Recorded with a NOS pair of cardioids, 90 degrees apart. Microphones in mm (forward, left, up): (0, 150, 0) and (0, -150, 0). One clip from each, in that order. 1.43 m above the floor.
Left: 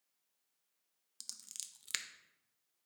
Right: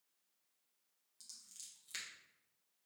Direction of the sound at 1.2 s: 65° left.